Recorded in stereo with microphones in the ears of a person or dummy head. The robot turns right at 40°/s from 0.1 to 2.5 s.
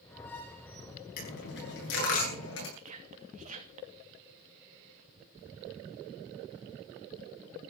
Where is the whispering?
45° right (ahead or behind), 2.5 m.